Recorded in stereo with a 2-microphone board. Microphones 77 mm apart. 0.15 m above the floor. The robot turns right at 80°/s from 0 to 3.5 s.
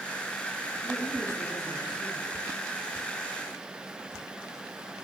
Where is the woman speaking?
Straight ahead, 5.5 m; by 2.4 s 120° left, 5.5 m.